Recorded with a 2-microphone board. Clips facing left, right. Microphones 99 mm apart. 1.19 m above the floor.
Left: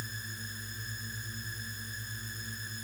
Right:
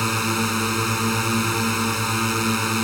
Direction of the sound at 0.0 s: 85° right.